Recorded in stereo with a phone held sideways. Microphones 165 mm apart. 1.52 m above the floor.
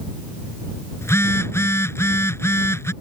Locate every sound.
1.0 s a phone buzzing: 15° left (ahead or behind)